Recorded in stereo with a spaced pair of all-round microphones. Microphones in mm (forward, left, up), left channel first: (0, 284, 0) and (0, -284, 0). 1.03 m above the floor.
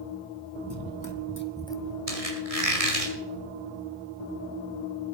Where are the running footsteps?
45° left (ahead or behind), 1.8 m; by 2.0 s 5° right (ahead or behind), 1.6 m.